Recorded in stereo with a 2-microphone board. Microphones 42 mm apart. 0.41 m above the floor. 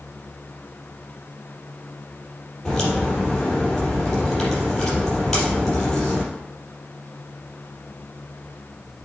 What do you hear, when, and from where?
2.6 s a crack: 10° left (ahead or behind), 4 m